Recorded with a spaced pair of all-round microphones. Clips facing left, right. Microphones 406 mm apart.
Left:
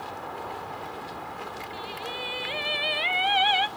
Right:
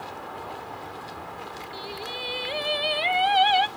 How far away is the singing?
About 0.5 m.